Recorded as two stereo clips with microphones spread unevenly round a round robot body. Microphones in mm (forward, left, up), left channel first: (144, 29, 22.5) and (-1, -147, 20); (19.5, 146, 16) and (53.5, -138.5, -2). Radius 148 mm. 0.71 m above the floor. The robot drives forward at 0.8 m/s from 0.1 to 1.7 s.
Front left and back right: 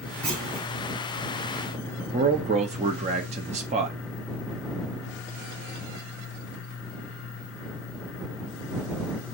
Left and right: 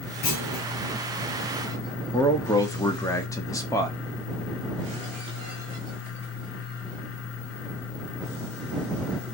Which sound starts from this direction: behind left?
A clunk, at 0.2 s.